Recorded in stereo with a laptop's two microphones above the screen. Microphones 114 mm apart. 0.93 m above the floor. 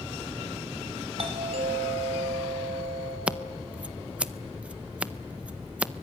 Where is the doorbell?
55° right (ahead or behind), 3.5 m.